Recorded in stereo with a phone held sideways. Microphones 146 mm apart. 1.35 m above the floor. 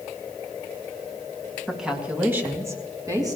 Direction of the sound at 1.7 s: Centre (ahead or behind).